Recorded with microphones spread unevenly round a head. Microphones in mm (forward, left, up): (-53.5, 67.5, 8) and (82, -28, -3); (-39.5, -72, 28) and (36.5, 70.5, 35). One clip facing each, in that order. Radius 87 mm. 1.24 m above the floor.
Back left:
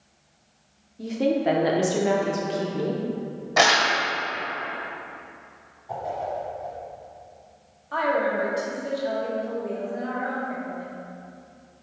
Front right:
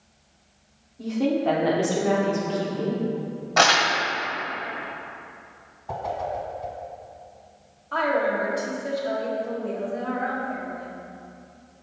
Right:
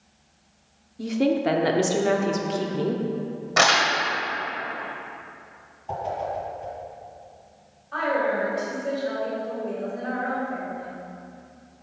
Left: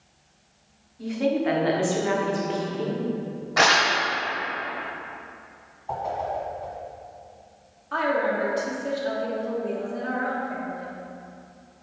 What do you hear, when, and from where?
1.0 s a woman speaking: 140° right, 0.8 m
3.6 s crumpling: 150° right, 1.4 m
5.9 s a whoosh: 45° right, 1.5 m
7.9 s a woman speaking: 65° left, 1.7 m